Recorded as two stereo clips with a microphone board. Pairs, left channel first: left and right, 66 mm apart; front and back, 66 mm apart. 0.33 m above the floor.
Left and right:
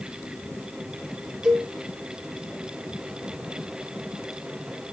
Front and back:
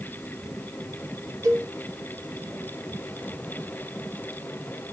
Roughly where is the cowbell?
Behind.